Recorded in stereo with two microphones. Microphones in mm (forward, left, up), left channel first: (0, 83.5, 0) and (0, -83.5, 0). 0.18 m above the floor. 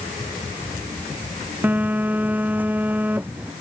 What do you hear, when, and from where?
1.6 s a phone buzzing: 10° right (ahead or behind)